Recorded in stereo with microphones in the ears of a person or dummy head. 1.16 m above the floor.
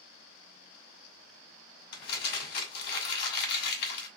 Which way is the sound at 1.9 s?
60° left (ahead or behind).